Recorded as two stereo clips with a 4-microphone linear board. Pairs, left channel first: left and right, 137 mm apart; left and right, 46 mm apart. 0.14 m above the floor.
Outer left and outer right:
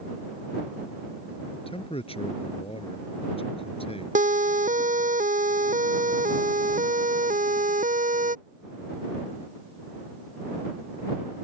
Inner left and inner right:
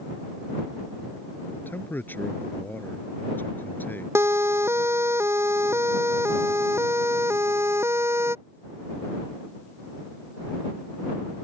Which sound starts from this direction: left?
A man speaking, at 1.5 s.